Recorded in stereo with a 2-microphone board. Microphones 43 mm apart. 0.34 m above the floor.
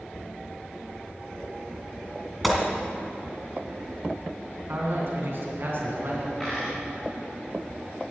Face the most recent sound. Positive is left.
turn(degrees=0)  # may be behind; listen again after turning